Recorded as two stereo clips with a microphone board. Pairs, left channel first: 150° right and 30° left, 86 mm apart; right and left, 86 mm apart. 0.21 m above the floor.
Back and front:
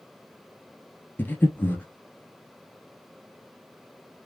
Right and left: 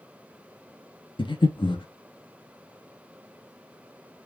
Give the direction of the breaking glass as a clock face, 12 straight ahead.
No breaking glass in this recording.